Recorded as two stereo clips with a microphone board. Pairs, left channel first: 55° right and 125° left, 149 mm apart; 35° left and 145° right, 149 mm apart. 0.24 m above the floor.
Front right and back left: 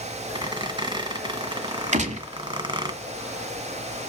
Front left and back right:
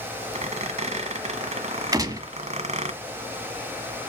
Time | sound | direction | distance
0.3 | a squeak | straight behind | 1.3 m
1.9 | a gunshot | 150° left | 1.4 m